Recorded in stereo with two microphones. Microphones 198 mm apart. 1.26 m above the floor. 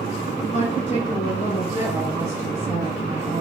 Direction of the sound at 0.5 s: 35° left (ahead or behind).